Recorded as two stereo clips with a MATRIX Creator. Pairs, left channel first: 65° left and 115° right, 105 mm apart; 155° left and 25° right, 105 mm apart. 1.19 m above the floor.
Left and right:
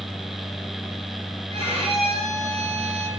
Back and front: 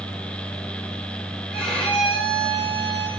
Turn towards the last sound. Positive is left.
turn(degrees=-120)